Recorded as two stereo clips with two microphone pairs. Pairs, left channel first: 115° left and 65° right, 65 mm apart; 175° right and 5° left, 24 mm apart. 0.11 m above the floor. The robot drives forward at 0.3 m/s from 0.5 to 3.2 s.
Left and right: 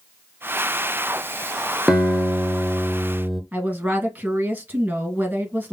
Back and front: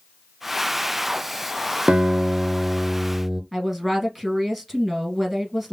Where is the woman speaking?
90° right, 1.3 m.